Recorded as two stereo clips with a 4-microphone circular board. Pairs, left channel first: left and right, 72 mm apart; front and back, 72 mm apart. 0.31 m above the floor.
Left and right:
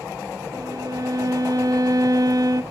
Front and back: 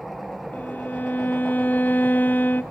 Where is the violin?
65° right, 0.5 m.